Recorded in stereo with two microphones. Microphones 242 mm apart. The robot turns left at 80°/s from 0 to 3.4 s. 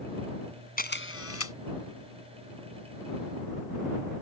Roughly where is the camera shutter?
Behind left.